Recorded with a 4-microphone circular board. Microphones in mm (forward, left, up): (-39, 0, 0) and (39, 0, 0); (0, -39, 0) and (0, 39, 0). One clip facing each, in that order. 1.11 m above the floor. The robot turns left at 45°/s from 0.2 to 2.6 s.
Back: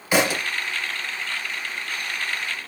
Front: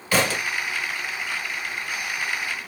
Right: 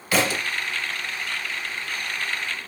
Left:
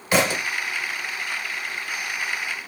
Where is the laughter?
No laughter in this recording.